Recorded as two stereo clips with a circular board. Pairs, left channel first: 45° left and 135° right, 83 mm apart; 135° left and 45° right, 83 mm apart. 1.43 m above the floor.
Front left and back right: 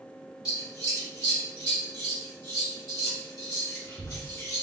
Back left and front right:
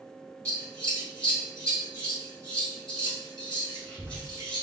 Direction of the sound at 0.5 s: 65° left.